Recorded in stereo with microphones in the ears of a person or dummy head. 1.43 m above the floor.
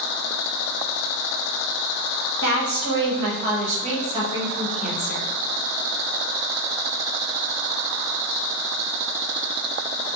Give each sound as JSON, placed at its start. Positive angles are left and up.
{"t": 2.4, "sound": "a woman speaking", "side_deg": -75, "distance_m": 1.4}